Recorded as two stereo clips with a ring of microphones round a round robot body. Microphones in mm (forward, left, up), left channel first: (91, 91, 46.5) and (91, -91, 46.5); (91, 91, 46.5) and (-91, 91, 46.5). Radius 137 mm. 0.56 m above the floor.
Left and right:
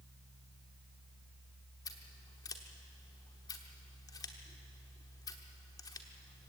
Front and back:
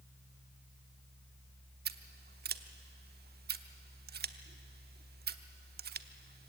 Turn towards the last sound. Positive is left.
turn(degrees=160)